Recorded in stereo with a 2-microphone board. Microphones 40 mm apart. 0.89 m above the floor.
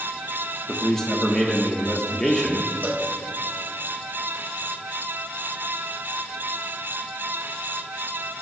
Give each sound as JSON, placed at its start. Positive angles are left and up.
{"t": 0.7, "sound": "a man speaking", "side_deg": 15, "distance_m": 1.1}
{"t": 2.8, "sound": "a cowbell", "side_deg": -55, "distance_m": 1.0}